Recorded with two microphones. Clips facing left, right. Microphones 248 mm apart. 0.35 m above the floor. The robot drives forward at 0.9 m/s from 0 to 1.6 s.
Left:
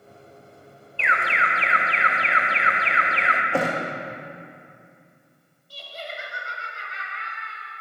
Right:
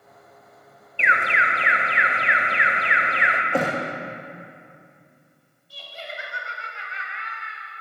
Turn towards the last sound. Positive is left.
turn(degrees=50)  # may be behind; listen again after turning